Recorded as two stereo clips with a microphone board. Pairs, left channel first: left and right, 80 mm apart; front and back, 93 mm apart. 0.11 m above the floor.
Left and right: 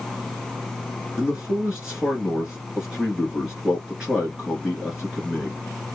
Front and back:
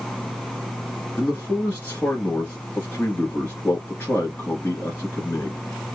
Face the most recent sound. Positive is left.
turn(degrees=-30)